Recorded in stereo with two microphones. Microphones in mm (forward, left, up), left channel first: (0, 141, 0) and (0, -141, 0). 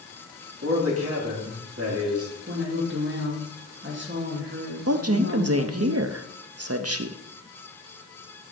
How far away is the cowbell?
I don't hear a cowbell.